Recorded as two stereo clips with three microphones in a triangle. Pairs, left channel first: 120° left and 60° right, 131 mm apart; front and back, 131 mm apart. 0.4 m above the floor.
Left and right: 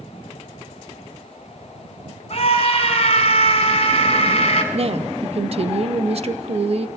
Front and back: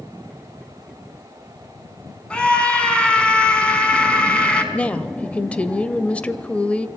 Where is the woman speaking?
80° right, 1.3 m.